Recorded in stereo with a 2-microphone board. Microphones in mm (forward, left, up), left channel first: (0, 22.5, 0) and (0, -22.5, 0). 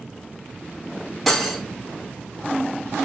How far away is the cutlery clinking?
About 0.7 m.